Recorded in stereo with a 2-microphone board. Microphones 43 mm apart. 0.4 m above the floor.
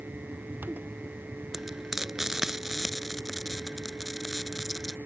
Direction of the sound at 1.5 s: 10° right (ahead or behind).